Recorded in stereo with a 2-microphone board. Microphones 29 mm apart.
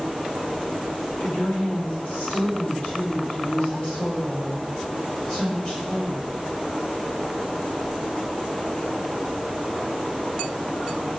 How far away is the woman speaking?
About 4 m.